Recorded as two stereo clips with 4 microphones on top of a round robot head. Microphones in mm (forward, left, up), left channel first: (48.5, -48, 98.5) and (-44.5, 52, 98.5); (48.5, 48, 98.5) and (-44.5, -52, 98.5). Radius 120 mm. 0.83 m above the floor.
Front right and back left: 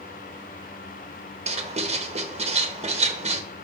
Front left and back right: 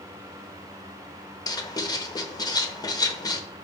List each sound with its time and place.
1.5 s writing: 105° left, 1.0 m